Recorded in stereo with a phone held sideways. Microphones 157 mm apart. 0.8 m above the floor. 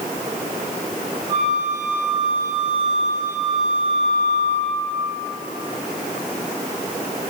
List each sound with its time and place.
1.3 s a flute: 50° right (ahead or behind), 2.5 m